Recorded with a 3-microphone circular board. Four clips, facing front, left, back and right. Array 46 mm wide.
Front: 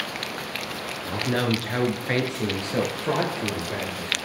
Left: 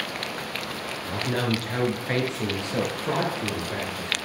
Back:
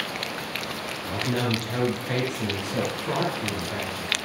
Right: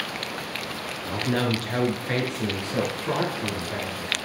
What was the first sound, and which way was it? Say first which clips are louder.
A man speaking: right 2 dB, front 2 dB; 40° right.